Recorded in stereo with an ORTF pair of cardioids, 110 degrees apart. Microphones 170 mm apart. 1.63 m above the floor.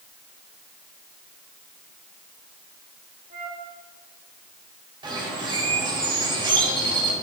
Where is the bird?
25° right, 3.5 m.